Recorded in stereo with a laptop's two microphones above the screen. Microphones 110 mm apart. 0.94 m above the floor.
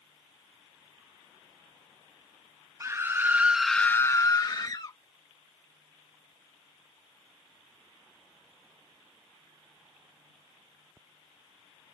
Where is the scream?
25° right (ahead or behind); by 5.0 s 40° left (ahead or behind).